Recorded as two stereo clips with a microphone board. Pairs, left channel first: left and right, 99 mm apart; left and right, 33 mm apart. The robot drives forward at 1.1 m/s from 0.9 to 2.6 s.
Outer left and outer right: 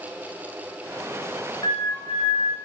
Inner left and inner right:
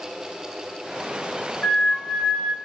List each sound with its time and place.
1.6 s a flute: 75° left (ahead or behind), 5 m; by 2.5 s 65° left (ahead or behind), 5 m